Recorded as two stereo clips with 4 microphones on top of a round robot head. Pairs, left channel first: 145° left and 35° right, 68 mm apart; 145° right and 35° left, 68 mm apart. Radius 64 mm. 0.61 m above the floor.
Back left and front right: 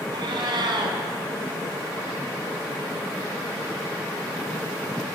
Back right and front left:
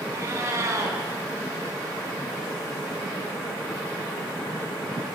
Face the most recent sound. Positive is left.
turn(degrees=-15)